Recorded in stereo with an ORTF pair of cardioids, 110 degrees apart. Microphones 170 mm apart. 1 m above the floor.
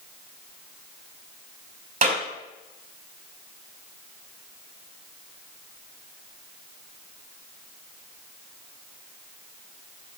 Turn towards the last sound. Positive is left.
turn(degrees=-50)